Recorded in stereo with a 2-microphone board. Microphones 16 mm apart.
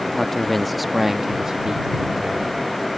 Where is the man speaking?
25° left (ahead or behind); by 2.6 s 55° right (ahead or behind).